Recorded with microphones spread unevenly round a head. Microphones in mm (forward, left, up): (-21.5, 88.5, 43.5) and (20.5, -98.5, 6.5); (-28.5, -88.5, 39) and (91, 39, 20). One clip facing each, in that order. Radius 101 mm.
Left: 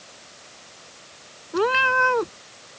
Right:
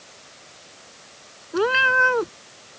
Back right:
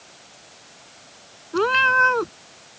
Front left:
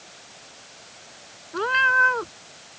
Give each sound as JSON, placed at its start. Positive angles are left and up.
{"t": 1.5, "sound": "a cat meowing", "azimuth_deg": -170}